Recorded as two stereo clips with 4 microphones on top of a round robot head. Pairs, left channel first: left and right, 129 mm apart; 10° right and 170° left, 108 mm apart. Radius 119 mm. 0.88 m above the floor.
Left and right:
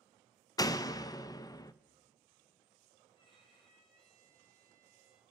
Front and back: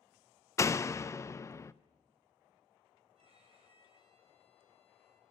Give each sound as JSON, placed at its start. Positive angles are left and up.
{"t": 0.6, "sound": "a door slam", "azimuth_deg": 45, "distance_m": 0.5}
{"t": 3.1, "sound": "a violin", "azimuth_deg": 140, "distance_m": 3.0}